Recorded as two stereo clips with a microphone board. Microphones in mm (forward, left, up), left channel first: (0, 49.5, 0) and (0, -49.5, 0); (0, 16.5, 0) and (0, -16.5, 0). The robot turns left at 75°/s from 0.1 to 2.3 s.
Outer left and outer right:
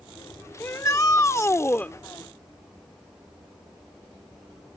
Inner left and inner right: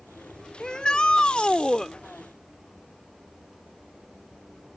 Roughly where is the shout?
Behind left.